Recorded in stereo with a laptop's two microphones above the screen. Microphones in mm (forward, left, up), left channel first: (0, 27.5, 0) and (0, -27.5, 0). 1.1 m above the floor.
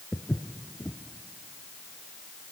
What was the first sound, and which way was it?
Footsteps, 20° left (ahead or behind).